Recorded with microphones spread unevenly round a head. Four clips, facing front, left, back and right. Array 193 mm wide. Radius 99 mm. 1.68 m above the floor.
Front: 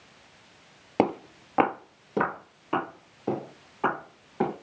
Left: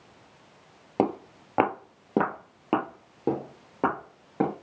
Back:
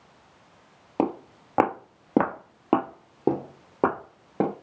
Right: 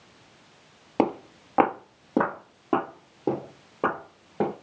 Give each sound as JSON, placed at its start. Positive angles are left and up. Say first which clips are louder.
{"t": 1.0, "sound": "footsteps", "louder": "right 2 dB, front 1 dB", "azimuth_deg": 15, "distance_m": 1.8}